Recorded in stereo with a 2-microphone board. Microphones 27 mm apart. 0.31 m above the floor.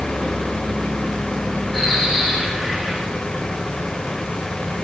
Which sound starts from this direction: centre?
A bird, at 1.7 s.